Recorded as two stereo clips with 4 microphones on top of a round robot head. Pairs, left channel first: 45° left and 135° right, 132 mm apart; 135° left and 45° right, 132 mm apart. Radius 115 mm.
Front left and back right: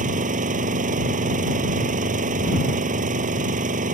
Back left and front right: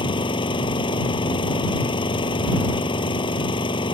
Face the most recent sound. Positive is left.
turn(degrees=-165)